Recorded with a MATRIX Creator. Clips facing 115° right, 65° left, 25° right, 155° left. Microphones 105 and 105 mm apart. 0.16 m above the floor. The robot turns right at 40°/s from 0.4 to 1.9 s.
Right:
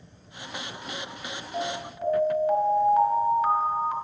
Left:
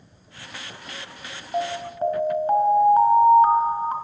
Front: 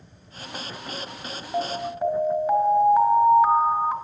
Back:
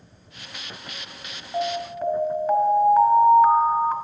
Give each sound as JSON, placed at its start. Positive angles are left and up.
{"t": 1.5, "sound": "an alarm", "azimuth_deg": 40, "distance_m": 1.4}